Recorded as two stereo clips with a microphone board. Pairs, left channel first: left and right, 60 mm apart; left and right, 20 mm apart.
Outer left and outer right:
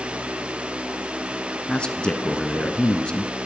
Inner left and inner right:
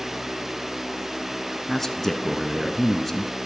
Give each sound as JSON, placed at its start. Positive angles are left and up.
{"t": 1.7, "sound": "a man speaking", "side_deg": 15, "distance_m": 1.3}